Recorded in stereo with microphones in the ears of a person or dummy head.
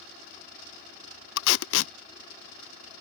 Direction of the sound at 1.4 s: 85° left.